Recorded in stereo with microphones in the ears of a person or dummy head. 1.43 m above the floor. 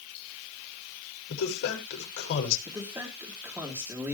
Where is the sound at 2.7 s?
10° right (ahead or behind), 4 m.